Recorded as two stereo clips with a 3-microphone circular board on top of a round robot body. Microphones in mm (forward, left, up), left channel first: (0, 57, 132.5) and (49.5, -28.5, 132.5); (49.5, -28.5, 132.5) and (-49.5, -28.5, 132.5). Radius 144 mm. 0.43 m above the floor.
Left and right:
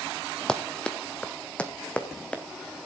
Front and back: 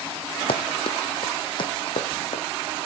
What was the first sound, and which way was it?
Running footsteps, 40° left.